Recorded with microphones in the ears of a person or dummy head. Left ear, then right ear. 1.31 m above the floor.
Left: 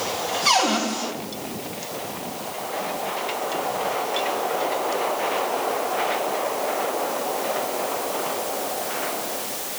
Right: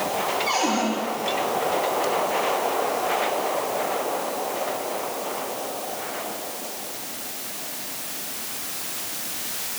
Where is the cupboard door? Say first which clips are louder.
Left 7 dB; 60° left (ahead or behind), 2.5 m.